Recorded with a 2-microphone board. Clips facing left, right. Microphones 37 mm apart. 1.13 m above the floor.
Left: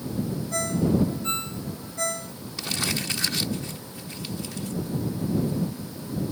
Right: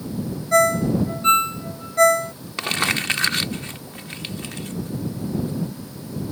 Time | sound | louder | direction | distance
0.5 | a ringtone | right 8 dB | 70° right (ahead or behind) | ?
2.6 | crumpling | right 7 dB | 55° right (ahead or behind) | ?